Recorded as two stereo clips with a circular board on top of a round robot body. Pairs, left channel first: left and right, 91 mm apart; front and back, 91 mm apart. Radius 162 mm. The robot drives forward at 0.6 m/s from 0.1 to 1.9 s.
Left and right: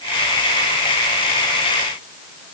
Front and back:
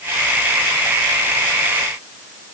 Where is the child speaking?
No child speaking in this recording.